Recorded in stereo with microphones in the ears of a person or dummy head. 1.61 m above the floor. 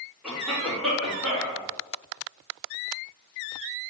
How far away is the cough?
About 1.7 m.